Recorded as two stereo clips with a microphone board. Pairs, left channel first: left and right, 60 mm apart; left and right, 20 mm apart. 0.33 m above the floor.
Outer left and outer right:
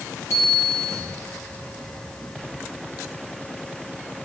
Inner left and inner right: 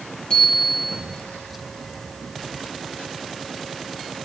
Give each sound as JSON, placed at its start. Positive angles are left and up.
{"t": 0.3, "sound": "a bicycle bell", "side_deg": 50, "distance_m": 5.0}